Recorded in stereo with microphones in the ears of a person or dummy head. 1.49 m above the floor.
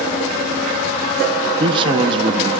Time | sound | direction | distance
1.6 | a man speaking | 30° right (ahead or behind) | 1.8 m